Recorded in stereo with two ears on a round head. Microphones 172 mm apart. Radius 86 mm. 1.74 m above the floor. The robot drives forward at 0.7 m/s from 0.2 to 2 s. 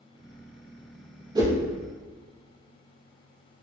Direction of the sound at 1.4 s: 20° right (ahead or behind).